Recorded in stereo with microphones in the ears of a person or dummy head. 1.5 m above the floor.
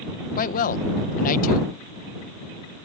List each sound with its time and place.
0.4 s a man speaking: 50° left (ahead or behind)